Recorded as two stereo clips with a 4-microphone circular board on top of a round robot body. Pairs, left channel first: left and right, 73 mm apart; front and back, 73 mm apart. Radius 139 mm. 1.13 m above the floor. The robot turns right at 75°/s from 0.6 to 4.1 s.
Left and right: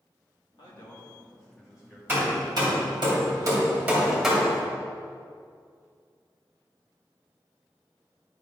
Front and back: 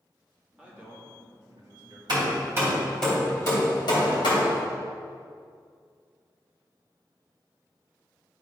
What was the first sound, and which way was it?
A man speaking, 100° left.